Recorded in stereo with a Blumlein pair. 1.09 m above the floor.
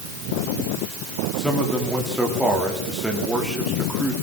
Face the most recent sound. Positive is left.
turn(degrees=0)